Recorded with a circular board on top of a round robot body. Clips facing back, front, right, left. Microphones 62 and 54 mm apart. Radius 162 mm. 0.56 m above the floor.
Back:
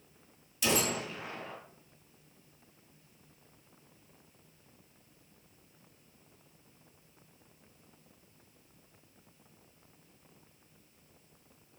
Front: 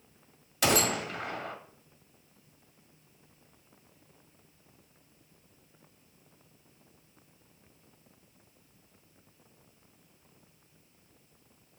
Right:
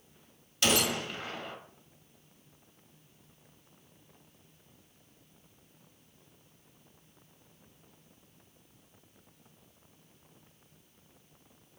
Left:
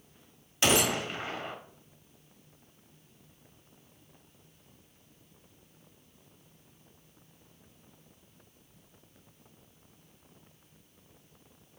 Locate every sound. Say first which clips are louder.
0.6 s a gunshot: front 4 dB, left 2 dB; 30° left, 1.1 m